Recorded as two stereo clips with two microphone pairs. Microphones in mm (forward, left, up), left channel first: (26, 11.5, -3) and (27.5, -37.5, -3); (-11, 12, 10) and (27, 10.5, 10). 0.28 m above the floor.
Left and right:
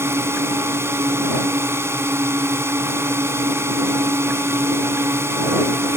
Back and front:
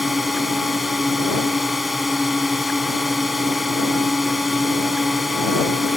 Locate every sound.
0.0 s a drone: 90° right